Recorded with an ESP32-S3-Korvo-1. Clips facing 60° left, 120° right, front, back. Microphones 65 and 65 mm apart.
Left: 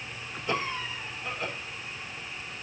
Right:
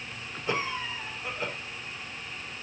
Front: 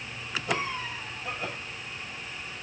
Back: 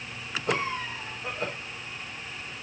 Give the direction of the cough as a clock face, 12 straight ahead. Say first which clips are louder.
Even, back 3 dB; 6 o'clock.